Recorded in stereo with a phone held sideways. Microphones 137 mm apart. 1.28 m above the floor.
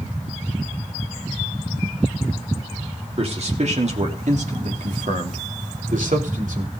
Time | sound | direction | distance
3.2 | a man speaking | 50° right (ahead or behind) | 3 m